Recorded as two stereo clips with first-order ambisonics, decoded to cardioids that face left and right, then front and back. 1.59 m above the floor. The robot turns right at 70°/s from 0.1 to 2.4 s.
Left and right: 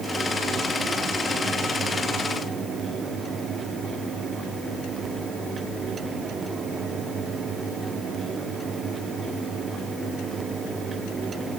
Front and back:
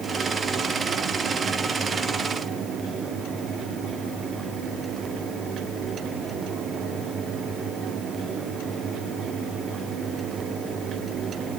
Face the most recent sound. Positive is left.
No sound to turn to.